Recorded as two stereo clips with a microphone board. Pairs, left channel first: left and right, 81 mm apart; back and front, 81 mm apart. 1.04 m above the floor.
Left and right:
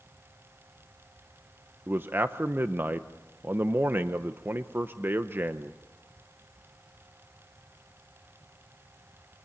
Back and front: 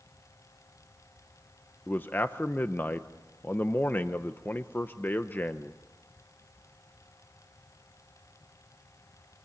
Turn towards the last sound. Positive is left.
turn(degrees=-130)